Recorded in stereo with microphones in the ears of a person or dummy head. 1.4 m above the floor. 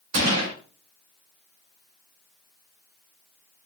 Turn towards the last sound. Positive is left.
turn(degrees=-80)